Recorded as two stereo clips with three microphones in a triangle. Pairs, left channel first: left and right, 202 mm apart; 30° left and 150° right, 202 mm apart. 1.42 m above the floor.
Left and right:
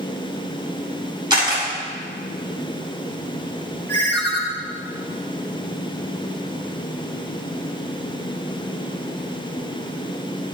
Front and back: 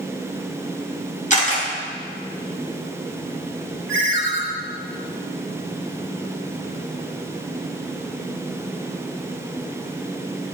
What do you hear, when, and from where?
1.3 s a camera shutter: 20° right, 5 m
3.9 s a ringtone: 5° left, 4.5 m